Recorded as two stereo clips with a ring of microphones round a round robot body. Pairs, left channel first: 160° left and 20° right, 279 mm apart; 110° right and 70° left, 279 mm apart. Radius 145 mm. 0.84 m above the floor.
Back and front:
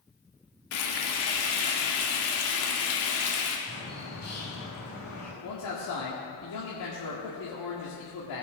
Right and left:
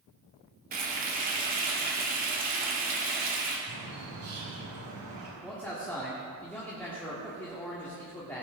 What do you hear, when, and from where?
0.7 s frying: 125° left, 2 m
3.7 s a bird: 100° left, 4 m
5.4 s a man speaking: 165° left, 1.9 m